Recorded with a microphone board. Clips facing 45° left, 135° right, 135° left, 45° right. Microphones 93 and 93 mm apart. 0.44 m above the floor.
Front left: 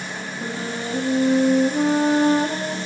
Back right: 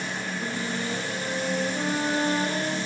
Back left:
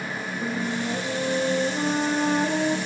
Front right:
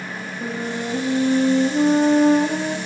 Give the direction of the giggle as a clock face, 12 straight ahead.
I don't hear a giggle.